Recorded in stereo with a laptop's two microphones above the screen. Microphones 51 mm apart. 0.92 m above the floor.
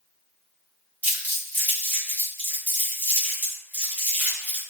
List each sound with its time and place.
1.0 s crumpling: 35° right (ahead or behind), 1.2 m